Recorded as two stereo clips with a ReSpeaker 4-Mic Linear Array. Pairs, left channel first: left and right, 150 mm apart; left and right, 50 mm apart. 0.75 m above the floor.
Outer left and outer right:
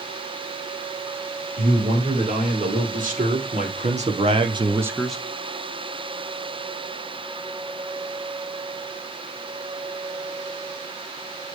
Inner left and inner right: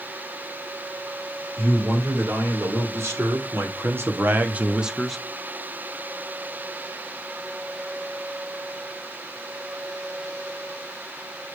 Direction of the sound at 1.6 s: 70° right (ahead or behind).